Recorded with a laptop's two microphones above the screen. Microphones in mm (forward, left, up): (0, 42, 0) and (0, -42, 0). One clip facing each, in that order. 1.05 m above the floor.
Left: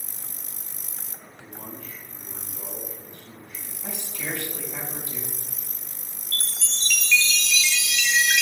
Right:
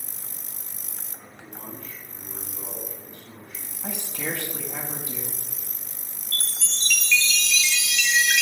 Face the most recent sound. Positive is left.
turn(degrees=5)  # may be behind; listen again after turning